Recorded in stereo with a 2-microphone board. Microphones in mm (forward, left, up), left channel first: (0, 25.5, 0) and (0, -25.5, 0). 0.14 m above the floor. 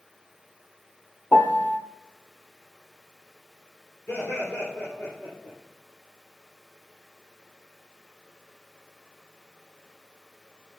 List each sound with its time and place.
1.3 s a piano: 30° left (ahead or behind), 0.6 m
4.1 s laughter: 30° left (ahead or behind), 3 m